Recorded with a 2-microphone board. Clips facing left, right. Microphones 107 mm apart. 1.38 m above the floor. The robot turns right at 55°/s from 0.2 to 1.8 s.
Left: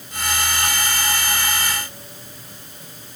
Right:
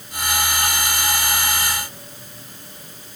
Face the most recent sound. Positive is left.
No sound to turn to.